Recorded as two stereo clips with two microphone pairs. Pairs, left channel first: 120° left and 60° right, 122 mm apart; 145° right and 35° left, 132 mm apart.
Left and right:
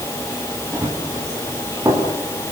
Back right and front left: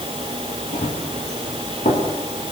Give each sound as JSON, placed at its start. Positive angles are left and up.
{"t": 0.7, "sound": "running footsteps", "azimuth_deg": -125, "distance_m": 6.5}